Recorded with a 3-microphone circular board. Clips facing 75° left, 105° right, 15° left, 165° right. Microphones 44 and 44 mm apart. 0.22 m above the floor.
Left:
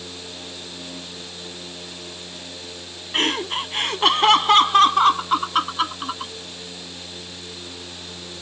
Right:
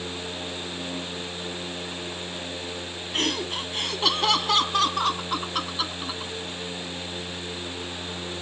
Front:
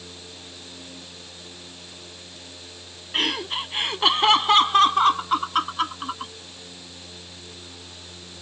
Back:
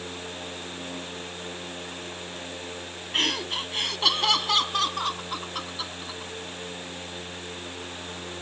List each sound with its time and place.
3.1 s laughter: 95° left; by 6.3 s 35° left